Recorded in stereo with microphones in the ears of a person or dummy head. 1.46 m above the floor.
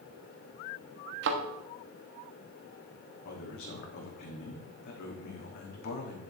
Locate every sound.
1.2 s a thud: 55° right (ahead or behind), 1.1 m
3.2 s a man speaking: 50° left (ahead or behind), 2.5 m